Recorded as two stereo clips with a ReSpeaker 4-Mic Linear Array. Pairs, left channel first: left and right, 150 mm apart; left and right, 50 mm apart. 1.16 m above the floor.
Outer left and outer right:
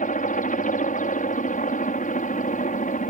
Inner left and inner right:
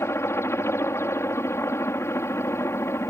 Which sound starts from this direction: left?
A helicopter, at 0.0 s.